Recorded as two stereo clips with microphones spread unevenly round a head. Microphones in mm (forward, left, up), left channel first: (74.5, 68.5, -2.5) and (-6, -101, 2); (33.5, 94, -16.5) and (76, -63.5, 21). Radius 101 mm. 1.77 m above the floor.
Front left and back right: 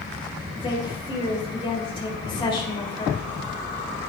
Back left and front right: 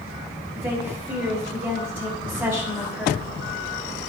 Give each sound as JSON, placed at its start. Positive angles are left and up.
{"t": 0.5, "sound": "a woman speaking", "azimuth_deg": 0, "distance_m": 3.5}